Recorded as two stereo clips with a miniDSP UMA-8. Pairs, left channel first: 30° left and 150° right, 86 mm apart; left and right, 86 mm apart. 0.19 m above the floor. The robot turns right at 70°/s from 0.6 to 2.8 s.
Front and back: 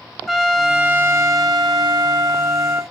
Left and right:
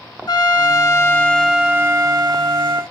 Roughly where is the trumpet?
Behind left.